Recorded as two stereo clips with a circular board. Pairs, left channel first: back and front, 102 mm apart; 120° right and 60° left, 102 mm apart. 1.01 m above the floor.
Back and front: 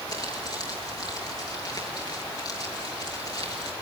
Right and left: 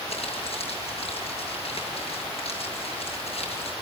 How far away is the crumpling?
About 7 m.